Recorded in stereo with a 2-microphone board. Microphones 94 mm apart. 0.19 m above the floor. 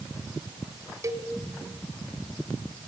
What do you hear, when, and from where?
1.0 s a cowbell: 35° right (ahead or behind), 1.5 m